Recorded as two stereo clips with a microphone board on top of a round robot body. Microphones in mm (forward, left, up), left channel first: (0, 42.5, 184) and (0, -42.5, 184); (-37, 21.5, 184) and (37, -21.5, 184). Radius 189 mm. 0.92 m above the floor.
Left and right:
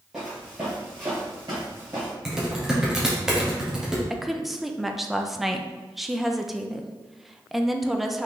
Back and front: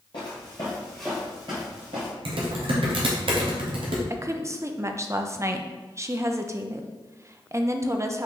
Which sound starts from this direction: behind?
Footsteps, at 0.1 s.